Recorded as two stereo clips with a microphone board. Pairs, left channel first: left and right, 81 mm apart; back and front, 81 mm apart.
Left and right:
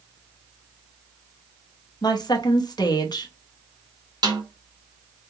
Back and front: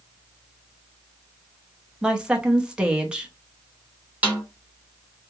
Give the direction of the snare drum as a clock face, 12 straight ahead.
2 o'clock.